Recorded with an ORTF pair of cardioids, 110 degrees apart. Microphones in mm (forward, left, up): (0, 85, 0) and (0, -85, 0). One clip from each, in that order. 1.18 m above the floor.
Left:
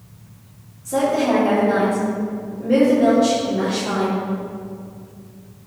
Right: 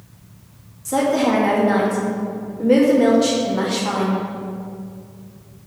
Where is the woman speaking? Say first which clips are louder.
Even; 55° right, 2 m.